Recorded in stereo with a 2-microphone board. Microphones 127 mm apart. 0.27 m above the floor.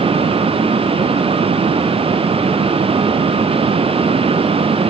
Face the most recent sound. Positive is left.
No sound to turn to.